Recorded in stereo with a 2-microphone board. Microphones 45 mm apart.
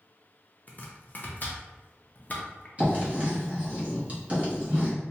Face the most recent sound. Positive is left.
turn(degrees=-30)  # may be behind; listen again after turning